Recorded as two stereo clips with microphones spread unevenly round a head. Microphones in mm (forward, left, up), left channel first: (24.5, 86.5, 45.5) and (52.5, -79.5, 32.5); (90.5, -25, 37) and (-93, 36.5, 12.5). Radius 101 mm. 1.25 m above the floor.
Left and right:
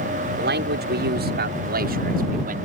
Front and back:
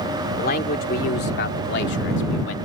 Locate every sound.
0.4 s a man speaking: 65° right; by 2.5 s 45° right